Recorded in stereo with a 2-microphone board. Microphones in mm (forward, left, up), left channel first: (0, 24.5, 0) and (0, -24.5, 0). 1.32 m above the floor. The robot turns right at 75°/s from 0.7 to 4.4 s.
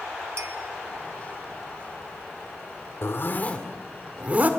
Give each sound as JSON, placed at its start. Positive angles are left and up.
{"t": 0.4, "sound": "a clink", "side_deg": -75, "distance_m": 1.9}
{"t": 3.0, "sound": "a zipper", "azimuth_deg": 115, "distance_m": 2.0}